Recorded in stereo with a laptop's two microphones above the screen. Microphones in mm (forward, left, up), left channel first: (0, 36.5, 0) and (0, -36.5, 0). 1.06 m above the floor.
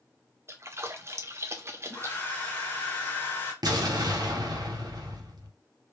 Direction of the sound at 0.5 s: 40° right (ahead or behind).